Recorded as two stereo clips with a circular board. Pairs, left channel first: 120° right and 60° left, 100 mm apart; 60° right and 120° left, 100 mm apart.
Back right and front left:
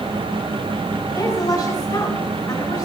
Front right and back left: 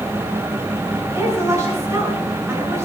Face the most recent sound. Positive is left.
turn(degrees=180)